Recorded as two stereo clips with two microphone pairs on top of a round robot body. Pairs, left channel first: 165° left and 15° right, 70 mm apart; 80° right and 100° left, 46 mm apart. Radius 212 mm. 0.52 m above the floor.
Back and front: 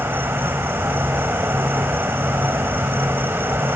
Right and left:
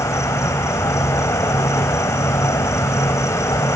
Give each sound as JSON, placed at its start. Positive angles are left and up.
{"t": 0.0, "sound": "an insect", "azimuth_deg": -75}